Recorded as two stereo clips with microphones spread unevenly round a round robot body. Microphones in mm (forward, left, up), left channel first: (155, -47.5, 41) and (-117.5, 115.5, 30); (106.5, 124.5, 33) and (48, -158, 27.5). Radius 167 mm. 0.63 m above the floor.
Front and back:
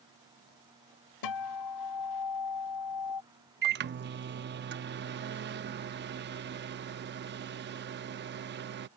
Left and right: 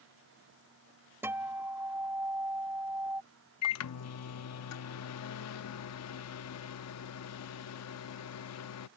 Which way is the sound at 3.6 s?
100° left.